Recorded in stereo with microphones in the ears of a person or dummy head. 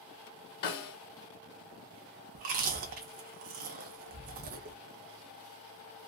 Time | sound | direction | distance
0.6 | a snare drum | 50° left (ahead or behind) | 1.1 m
2.4 | chewing | 45° right (ahead or behind) | 0.7 m